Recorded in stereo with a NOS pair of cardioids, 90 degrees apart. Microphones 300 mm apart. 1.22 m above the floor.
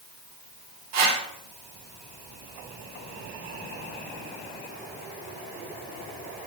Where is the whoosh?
60° right, 3 m.